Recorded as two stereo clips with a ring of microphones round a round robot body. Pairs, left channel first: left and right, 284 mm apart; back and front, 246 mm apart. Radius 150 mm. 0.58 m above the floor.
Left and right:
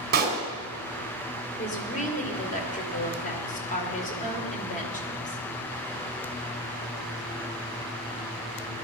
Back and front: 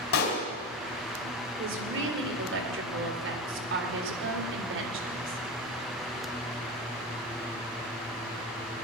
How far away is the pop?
About 2.5 m.